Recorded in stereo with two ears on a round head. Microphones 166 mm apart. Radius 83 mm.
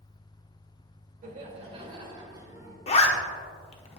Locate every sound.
1.2 s laughter: 45° right (ahead or behind), 1.6 m; by 2.8 s 15° right (ahead or behind), 2 m
2.9 s a zipper: 35° left (ahead or behind), 0.8 m